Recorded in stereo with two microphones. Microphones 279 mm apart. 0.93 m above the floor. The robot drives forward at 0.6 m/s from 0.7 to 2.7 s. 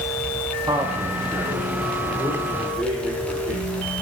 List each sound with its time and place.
0.7 s a man speaking: 15° right (ahead or behind), 1.1 m; by 3.6 s 5° right (ahead or behind), 2.5 m